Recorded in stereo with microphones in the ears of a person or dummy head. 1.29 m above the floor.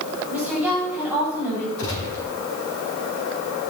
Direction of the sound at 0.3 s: 20° right (ahead or behind).